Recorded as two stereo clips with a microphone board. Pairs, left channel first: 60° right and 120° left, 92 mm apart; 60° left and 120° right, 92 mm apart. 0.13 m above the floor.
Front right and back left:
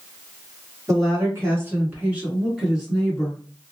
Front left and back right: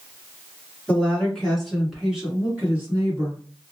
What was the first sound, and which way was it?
A woman speaking, 125° left.